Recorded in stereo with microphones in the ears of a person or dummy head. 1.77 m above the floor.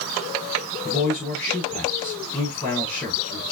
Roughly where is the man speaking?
Centre.